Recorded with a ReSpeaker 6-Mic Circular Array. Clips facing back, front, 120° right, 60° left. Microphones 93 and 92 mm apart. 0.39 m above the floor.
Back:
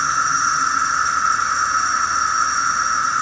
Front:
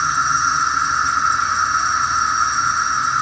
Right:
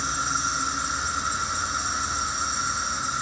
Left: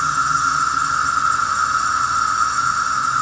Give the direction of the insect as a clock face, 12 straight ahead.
9 o'clock.